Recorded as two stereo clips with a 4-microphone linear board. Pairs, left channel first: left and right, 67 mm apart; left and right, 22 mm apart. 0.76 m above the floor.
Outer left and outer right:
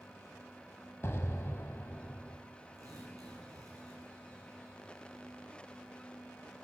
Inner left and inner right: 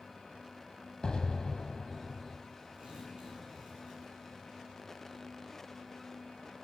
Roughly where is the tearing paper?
Right.